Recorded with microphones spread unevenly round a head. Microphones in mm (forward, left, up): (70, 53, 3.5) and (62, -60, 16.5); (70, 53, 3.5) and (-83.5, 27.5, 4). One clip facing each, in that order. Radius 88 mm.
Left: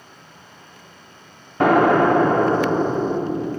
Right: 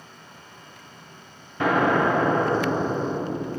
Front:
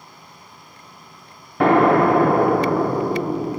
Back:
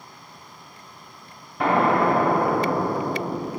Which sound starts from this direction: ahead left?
An explosion, at 1.6 s.